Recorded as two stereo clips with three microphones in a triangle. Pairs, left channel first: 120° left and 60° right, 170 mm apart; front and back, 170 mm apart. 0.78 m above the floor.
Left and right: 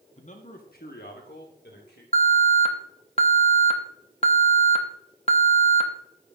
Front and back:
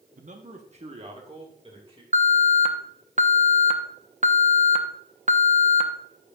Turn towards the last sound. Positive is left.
turn(degrees=155)